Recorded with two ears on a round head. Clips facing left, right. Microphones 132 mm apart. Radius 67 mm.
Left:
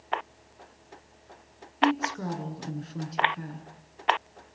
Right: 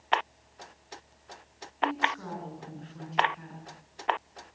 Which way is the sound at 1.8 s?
45° left (ahead or behind).